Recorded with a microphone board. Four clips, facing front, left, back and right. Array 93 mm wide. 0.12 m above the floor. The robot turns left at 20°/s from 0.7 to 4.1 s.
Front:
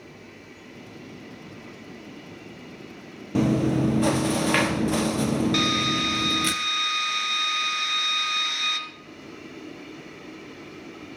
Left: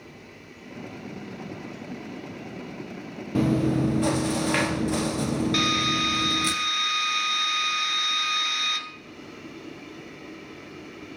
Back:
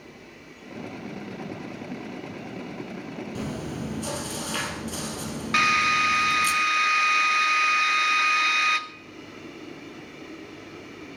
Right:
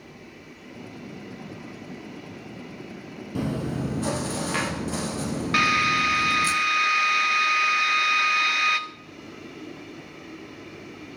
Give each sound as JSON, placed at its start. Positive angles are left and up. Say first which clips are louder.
{"t": 3.4, "sound": "chewing", "louder": "left 6 dB, front 14 dB", "azimuth_deg": 40, "distance_m": 2.0}
{"t": 5.5, "sound": "a drill", "louder": "right 3 dB, back 2 dB", "azimuth_deg": -130, "distance_m": 1.6}